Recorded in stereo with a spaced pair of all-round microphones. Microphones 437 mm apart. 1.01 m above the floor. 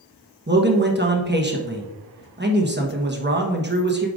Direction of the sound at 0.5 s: 20° right (ahead or behind).